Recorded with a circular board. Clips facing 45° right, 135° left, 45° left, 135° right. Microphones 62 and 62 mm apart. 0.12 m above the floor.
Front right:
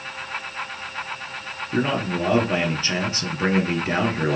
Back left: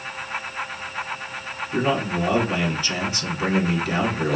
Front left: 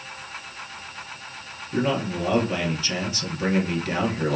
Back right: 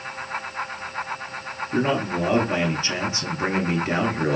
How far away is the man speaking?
About 1.5 m.